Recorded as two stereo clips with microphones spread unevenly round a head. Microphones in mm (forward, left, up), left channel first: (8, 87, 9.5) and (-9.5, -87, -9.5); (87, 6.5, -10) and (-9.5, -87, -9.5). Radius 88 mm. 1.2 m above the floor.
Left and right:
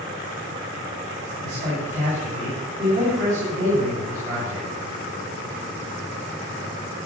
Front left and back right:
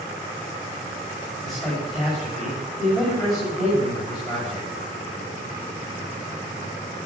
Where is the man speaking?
45° right, 7 m.